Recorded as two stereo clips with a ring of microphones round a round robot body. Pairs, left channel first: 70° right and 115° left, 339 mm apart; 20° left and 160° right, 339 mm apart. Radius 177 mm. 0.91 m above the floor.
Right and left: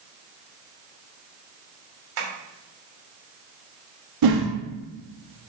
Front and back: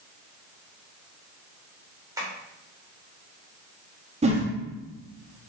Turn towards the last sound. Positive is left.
turn(degrees=130)